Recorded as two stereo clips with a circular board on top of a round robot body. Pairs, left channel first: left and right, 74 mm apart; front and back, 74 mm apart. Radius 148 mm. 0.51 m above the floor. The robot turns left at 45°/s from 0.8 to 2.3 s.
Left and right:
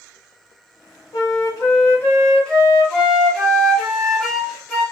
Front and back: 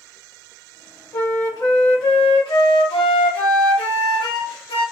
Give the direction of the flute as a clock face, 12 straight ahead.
10 o'clock.